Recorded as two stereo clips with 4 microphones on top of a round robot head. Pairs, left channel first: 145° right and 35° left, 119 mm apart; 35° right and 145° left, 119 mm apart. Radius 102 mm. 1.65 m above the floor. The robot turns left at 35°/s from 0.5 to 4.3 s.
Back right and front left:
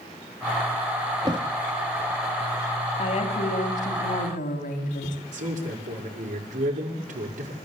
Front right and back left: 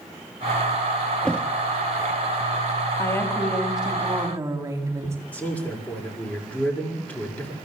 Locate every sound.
1.2 s a thud: 40° left, 1.0 m; by 1.5 s 30° left, 1.0 m
3.0 s a woman speaking: 100° right, 3.5 m; by 5.2 s 145° right, 3.5 m
5.3 s a man speaking: 40° left, 6 m